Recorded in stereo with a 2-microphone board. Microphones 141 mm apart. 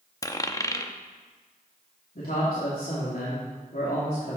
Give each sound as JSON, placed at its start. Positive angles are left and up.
{"t": 0.2, "sound": "a dropped coin", "side_deg": 25, "distance_m": 0.7}
{"t": 2.1, "sound": "a man speaking", "side_deg": 85, "distance_m": 2.5}